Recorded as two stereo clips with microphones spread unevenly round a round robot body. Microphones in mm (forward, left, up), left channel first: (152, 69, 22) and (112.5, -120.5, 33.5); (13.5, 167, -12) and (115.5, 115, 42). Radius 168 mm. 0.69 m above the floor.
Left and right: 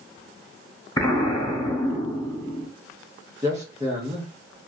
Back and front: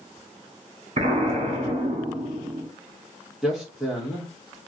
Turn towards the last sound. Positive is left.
turn(degrees=-170)